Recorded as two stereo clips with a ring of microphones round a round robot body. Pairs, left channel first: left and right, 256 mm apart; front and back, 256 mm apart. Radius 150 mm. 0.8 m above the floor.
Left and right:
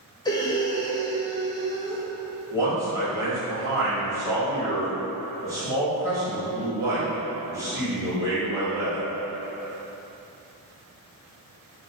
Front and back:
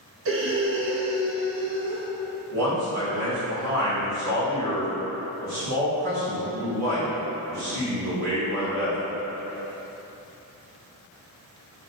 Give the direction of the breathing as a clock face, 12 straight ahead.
7 o'clock.